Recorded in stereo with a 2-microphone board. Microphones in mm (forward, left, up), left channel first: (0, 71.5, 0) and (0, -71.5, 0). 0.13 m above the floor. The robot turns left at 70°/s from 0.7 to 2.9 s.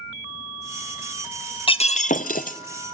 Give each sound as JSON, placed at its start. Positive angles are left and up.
{"t": 1.7, "sound": "breaking glass", "azimuth_deg": 140, "distance_m": 0.9}